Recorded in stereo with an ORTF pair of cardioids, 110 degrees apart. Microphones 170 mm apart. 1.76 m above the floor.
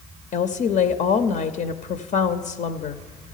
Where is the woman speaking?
50° left, 0.6 m.